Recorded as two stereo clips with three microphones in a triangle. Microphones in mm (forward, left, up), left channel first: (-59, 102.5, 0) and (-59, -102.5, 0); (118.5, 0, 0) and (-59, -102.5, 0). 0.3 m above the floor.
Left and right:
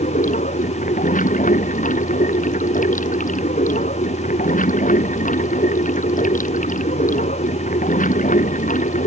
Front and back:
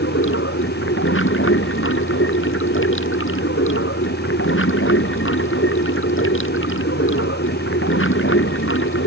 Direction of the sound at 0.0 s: 40° left.